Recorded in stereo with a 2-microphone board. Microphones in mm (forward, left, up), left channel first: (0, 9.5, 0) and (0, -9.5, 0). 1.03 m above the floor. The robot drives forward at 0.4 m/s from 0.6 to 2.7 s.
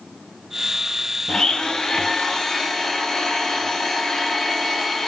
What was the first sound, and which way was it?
A blender, 55° left (ahead or behind).